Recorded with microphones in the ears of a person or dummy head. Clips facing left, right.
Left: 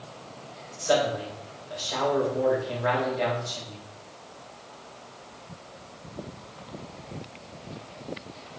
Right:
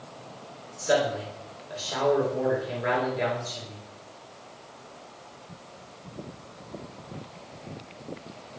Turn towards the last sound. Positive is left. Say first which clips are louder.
# even
turn(degrees=-25)  # may be behind; listen again after turning